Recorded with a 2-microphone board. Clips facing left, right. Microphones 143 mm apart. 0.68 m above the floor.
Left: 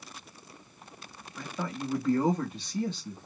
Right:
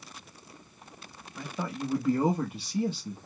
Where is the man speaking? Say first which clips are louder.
Right 1 dB; 10° right (ahead or behind), 0.9 m.